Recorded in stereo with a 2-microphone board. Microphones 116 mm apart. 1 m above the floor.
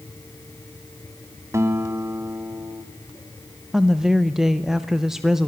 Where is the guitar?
25° right (ahead or behind), 1.4 m.